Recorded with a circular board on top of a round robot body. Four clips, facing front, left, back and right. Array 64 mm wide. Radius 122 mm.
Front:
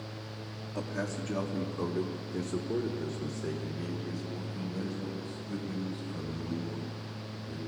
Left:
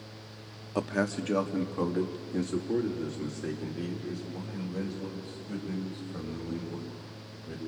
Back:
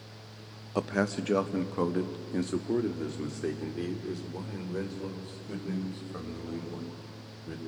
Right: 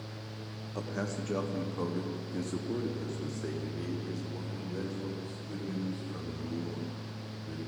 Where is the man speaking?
140° left, 0.9 m; by 7.6 s 175° left, 6.5 m.